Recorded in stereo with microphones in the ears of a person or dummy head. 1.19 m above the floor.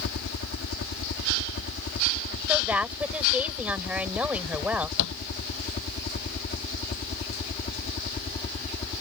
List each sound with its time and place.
0.0 s a helicopter: 55° left (ahead or behind); by 9.0 s 30° left (ahead or behind)
2.5 s a woman speaking: 10° right (ahead or behind)
5.0 s a thud: 70° left (ahead or behind)